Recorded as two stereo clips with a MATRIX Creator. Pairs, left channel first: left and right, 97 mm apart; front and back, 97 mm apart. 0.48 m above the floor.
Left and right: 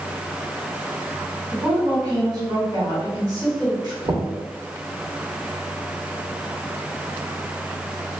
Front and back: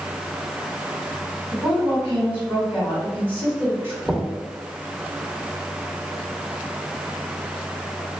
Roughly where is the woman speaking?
Behind right.